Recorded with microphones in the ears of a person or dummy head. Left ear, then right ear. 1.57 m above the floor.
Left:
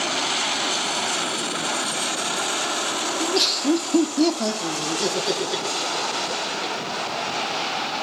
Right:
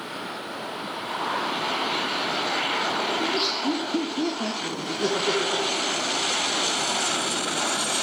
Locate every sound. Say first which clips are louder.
3.2 s laughter: left 3 dB; 30° left (ahead or behind), 0.6 m; by 6.9 s 25° left (ahead or behind), 2.5 m